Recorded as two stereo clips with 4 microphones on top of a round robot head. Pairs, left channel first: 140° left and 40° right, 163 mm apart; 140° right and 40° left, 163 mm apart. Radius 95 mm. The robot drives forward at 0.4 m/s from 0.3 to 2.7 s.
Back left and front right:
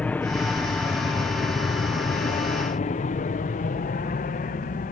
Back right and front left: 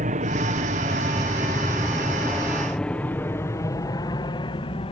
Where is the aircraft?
60° left; by 4.9 s 170° left.